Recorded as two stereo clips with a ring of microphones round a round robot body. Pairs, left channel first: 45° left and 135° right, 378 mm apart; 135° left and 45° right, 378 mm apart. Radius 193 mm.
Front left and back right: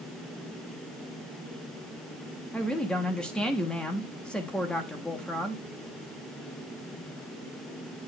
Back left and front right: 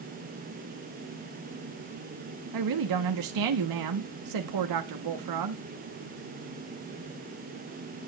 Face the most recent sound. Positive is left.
turn(degrees=-40)